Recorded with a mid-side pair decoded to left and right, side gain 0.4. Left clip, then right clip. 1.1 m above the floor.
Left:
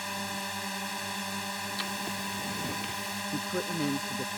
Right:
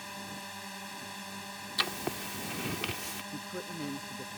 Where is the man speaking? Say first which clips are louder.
Left 8 dB; 55° left.